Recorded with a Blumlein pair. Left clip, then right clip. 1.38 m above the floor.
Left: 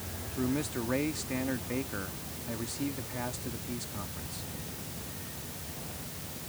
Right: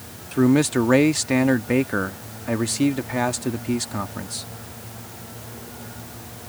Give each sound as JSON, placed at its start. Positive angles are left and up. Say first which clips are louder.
{"t": 0.3, "sound": "a man speaking", "louder": "right 15 dB", "azimuth_deg": -35}